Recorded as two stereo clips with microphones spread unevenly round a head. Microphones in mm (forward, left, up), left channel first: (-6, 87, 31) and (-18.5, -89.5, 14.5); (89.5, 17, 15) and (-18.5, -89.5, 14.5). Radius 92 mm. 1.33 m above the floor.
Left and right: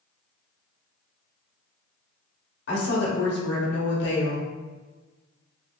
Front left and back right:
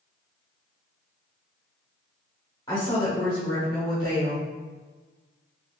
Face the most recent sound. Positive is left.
turn(degrees=115)